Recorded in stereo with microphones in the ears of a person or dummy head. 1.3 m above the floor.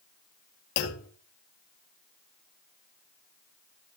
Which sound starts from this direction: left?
A clunk, at 0.8 s.